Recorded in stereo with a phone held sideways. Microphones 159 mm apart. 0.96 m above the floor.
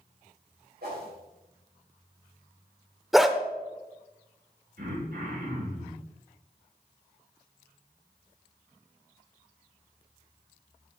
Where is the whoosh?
80° right, 3.5 m.